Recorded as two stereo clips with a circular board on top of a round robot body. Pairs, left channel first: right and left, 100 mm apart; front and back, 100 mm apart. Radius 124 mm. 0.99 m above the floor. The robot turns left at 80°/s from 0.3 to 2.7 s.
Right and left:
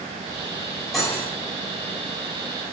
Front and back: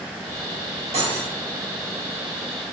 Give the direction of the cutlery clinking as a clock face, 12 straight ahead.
6 o'clock.